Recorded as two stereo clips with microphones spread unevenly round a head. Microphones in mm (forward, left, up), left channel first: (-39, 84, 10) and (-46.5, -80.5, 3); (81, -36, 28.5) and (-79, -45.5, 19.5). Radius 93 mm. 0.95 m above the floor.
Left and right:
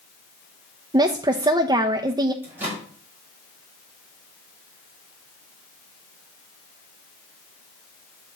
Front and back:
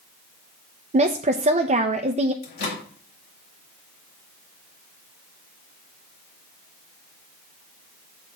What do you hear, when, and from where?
0.9 s a woman speaking: 150° right, 0.6 m
2.4 s a microwave: 10° right, 2 m